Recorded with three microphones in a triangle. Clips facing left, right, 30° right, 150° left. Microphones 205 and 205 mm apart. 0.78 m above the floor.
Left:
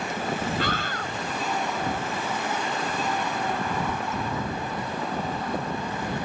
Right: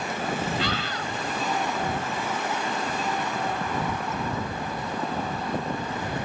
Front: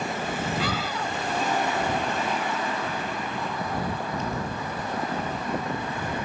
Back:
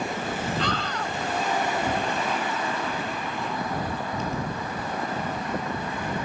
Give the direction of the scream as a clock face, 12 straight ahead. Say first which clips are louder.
Even, even; 10 o'clock.